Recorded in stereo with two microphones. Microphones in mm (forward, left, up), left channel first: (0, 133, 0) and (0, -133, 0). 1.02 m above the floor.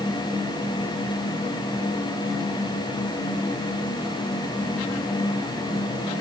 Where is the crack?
No crack in this recording.